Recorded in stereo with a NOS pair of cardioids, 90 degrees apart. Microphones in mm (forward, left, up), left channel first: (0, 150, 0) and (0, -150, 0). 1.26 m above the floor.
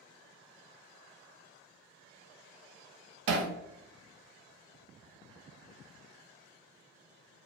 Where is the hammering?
55° right, 0.5 m.